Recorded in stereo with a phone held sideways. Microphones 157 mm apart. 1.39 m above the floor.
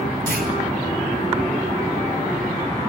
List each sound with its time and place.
0.3 s a clunk: 80° right, 5.5 m